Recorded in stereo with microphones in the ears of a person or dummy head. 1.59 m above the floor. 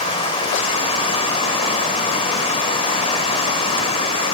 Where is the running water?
25° left (ahead or behind), 3.5 m.